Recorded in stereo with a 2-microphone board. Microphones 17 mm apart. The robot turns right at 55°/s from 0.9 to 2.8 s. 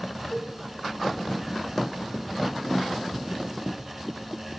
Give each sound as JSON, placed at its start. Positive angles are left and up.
{"t": 0.3, "sound": "a cowbell", "side_deg": 55, "distance_m": 3.5}